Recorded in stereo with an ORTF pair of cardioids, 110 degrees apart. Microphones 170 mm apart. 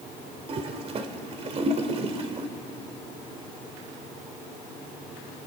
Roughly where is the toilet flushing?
Ahead right.